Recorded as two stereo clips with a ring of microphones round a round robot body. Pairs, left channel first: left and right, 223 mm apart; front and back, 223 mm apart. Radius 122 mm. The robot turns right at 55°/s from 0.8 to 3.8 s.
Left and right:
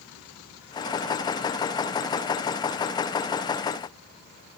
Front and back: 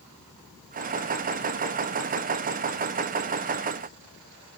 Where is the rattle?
I don't hear a rattle.